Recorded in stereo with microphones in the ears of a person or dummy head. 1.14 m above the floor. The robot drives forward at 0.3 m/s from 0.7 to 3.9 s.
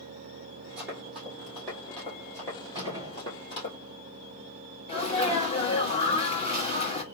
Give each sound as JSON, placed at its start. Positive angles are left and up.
{"t": 0.8, "sound": "running footsteps", "side_deg": -5, "distance_m": 1.8}
{"t": 2.8, "sound": "a gunshot", "side_deg": -15, "distance_m": 2.0}
{"t": 4.9, "sound": "a sneeze", "side_deg": 35, "distance_m": 1.5}